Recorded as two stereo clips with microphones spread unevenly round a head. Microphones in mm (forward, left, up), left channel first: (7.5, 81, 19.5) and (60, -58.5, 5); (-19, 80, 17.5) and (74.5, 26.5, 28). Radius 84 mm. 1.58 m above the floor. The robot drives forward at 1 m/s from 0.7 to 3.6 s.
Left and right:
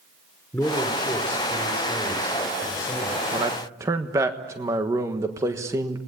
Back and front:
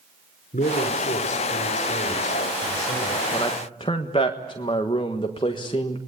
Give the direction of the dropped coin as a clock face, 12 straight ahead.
No dropped coin in this recording.